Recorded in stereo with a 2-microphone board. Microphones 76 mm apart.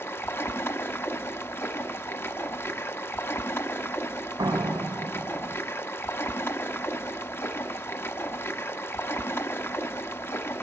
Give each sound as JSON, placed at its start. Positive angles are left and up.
{"t": 0.0, "sound": "running water", "side_deg": 30, "distance_m": 1.1}
{"t": 4.4, "sound": "a door slam", "side_deg": -70, "distance_m": 1.2}